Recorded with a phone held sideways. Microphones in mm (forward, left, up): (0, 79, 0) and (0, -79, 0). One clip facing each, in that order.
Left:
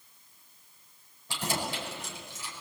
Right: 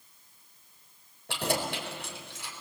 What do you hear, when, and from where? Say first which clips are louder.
1.3 s keys jangling: right 3 dB; 65° right (ahead or behind), 4.5 m